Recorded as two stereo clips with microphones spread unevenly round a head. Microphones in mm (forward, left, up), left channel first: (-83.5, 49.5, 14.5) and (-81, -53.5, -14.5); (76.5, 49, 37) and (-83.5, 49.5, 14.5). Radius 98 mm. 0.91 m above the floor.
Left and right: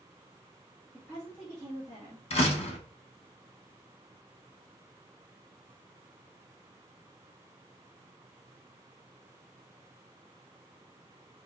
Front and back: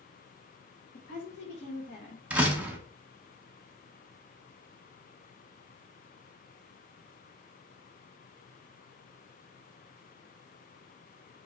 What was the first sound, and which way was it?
A woman speaking, 10° left.